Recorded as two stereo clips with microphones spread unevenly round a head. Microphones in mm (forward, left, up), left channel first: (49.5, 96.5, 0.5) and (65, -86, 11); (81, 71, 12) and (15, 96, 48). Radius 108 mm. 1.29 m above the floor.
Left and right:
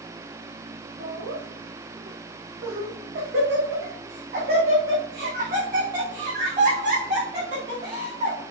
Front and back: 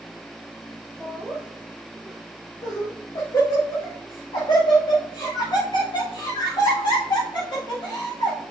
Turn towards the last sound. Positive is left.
turn(degrees=-35)